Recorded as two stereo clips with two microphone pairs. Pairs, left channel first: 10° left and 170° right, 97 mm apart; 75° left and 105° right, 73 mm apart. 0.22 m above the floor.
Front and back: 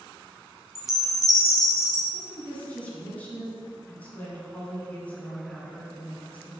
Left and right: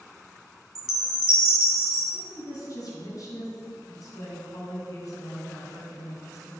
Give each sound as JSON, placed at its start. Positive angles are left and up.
{"t": 0.8, "sound": "a chime", "azimuth_deg": 105, "distance_m": 1.3}
{"t": 2.1, "sound": "a woman speaking", "azimuth_deg": 85, "distance_m": 1.9}